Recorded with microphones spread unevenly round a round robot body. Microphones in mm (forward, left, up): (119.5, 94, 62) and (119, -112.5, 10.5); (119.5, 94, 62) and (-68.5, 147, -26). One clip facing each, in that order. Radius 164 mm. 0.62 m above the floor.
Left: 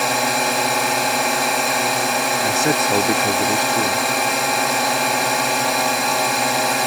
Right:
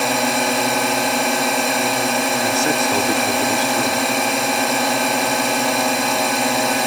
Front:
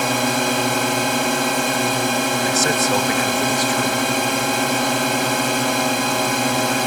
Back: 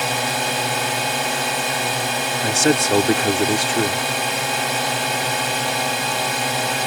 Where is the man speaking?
170° left.